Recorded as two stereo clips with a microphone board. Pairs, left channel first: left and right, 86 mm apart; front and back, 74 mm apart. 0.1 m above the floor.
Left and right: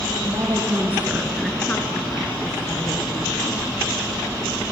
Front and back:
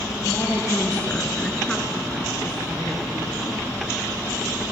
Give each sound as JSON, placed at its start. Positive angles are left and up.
{"t": 0.2, "sound": "a woman speaking", "azimuth_deg": -55, "distance_m": 1.7}